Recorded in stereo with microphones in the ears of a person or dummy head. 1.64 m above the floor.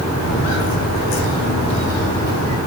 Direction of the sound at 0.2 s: 55° left (ahead or behind).